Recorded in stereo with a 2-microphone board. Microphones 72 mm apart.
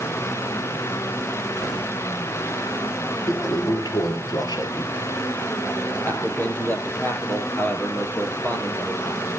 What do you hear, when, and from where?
3.3 s a toilet flushing: 65° left (ahead or behind), 3 m
6.0 s a man speaking: 25° left (ahead or behind), 4 m